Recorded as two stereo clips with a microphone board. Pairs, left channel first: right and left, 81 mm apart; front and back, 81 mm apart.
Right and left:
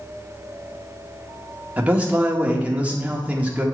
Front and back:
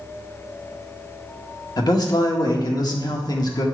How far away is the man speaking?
About 1.6 m.